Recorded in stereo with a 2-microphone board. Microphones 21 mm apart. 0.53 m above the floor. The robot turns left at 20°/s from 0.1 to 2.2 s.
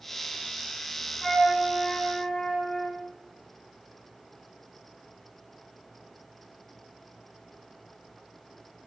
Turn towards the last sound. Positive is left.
turn(degrees=30)  # may be behind; listen again after turning